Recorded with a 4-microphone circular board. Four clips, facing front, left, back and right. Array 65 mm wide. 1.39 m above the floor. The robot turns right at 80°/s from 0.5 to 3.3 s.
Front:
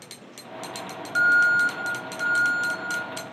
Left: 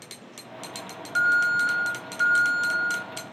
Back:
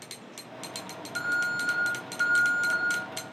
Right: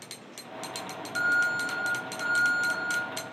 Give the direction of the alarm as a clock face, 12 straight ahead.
11 o'clock.